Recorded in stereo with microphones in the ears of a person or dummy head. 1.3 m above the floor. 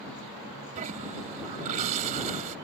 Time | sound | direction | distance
0.8 | a toilet flushing | 40° right (ahead or behind) | ?